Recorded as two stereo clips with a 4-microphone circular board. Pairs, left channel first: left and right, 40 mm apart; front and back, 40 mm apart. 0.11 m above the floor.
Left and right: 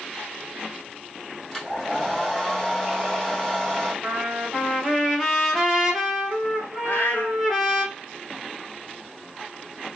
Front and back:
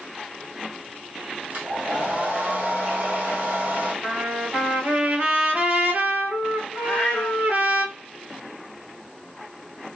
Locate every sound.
1.5 s a hair dryer: 170° left, 2.0 m
4.0 s a trumpet: 175° right, 1.1 m
6.8 s a cat meowing: 60° left, 0.9 m